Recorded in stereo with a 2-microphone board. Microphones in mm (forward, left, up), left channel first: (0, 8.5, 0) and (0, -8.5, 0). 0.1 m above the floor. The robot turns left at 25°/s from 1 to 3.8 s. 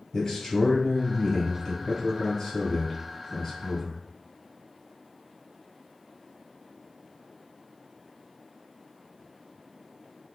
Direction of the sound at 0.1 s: 65° left.